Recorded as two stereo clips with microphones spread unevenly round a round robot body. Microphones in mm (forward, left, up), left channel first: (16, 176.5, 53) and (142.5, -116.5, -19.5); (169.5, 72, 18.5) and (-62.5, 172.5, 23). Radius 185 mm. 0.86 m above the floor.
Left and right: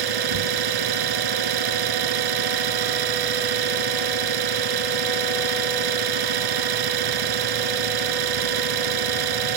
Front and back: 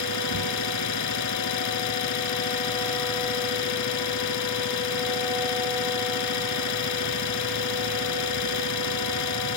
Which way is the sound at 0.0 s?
65° right.